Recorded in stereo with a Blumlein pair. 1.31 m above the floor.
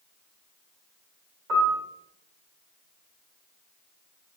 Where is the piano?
40° right, 1.2 m.